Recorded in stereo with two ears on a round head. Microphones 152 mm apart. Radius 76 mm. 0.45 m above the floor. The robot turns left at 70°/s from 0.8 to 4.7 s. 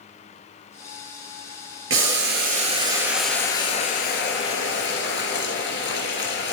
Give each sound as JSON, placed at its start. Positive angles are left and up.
{"t": 1.9, "sound": "boiling", "azimuth_deg": -85, "distance_m": 2.5}